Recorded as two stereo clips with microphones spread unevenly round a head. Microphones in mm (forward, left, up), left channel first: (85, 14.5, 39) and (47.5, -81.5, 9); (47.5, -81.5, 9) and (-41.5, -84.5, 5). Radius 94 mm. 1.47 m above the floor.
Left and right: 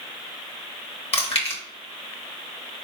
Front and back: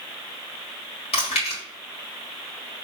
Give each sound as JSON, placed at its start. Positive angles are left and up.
{"t": 1.1, "sound": "chewing", "azimuth_deg": 55, "distance_m": 1.3}